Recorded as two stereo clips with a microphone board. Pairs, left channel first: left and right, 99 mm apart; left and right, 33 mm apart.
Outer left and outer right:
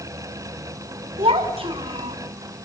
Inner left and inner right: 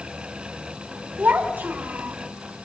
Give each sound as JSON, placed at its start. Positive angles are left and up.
{"t": 1.2, "sound": "a child speaking", "side_deg": -75, "distance_m": 2.5}